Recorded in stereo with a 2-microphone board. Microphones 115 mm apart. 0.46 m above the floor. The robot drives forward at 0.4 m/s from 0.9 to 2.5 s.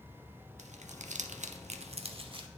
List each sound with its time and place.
0.6 s crumpling: 65° right (ahead or behind), 0.5 m; by 2.5 s 45° right (ahead or behind), 0.7 m